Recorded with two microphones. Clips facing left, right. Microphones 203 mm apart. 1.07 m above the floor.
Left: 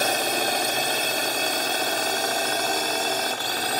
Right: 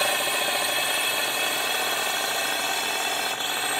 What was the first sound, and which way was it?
A drone, 40° left (ahead or behind).